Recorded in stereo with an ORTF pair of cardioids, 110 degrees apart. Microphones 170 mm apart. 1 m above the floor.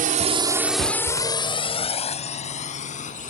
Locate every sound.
0.0 s a drone: 60° right; by 3.3 s 45° left